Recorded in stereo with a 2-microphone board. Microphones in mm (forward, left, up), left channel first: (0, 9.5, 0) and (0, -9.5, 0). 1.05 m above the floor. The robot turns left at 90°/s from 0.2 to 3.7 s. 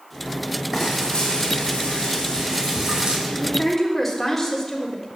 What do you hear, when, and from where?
0.7 s frying: 175° right, 5.5 m; by 3.2 s 35° right, 5.5 m
3.3 s a woman speaking: 50° left, 3.5 m; by 5.1 s 10° left, 3.5 m